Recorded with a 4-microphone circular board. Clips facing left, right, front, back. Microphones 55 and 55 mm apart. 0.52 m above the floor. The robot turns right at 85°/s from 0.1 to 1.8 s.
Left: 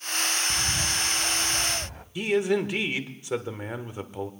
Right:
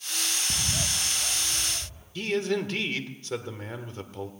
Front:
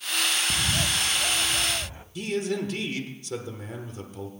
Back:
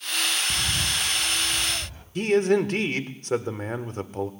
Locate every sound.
0.5 s a bird: 40° right, 1.0 m; by 2.0 s 70° left, 1.0 m
2.1 s a man speaking: 160° left, 1.3 m